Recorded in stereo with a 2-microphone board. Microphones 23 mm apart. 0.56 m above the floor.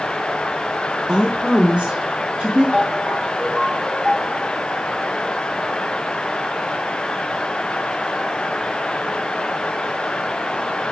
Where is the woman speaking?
40° right (ahead or behind), 0.8 m; by 2.6 s 75° right (ahead or behind), 3 m.